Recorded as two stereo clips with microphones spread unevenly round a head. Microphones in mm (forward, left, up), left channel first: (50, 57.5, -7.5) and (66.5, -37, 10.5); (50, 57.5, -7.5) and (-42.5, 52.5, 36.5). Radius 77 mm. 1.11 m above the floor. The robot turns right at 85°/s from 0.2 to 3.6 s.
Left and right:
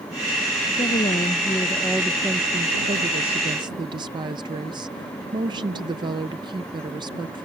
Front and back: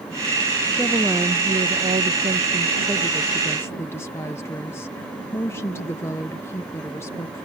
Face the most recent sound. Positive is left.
turn(degrees=-40)